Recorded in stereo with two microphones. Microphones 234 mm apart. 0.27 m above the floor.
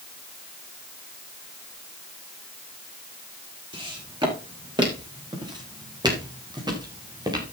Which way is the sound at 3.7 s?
20° right (ahead or behind).